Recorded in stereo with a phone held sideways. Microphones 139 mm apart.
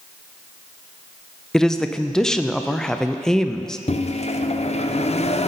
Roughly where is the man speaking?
Centre.